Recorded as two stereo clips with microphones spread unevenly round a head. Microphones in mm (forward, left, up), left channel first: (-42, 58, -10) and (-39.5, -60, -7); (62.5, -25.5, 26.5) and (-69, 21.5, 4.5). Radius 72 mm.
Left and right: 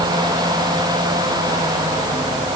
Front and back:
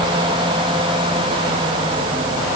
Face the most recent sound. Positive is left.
No sound to turn to.